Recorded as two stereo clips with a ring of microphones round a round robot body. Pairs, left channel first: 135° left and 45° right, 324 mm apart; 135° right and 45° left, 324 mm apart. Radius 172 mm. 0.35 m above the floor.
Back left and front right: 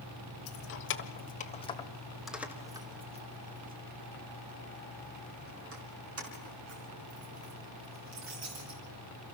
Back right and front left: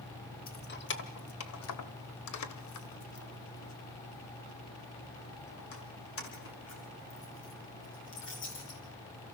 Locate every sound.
0.5 s keys jangling: 170° left, 1.5 m; by 8.8 s 80° right, 5 m